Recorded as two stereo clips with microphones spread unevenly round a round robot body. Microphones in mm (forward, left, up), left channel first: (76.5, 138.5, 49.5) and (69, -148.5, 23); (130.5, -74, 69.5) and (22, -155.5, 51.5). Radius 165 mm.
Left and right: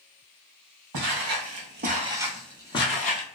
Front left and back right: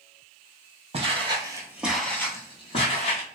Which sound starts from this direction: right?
Footsteps, at 0.9 s.